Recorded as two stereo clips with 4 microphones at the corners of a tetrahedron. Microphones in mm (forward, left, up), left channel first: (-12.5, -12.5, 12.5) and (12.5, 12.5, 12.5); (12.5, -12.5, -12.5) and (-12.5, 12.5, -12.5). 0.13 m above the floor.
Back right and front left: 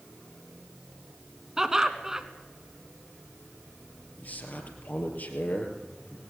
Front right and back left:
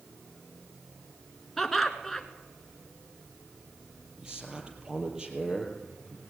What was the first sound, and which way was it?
Laughter, 30° left.